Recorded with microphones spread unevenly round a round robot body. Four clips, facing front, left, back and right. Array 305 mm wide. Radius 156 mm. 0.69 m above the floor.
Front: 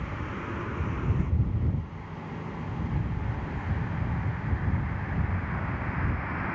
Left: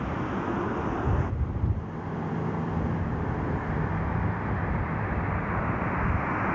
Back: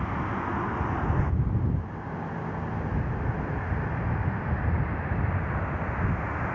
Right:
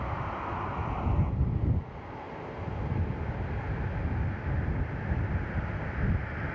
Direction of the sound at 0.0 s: 135° left.